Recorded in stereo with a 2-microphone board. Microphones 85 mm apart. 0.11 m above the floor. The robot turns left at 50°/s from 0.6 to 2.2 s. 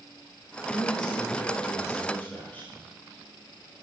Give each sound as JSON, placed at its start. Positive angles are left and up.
{"t": 0.7, "sound": "a man speaking", "azimuth_deg": 95, "distance_m": 8.0}